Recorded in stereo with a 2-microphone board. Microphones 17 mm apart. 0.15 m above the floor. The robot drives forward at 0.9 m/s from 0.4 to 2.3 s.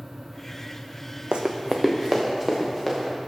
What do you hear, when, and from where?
1.3 s running footsteps: 75° right (ahead or behind), 0.6 m; by 3.1 s 10° right (ahead or behind), 1.9 m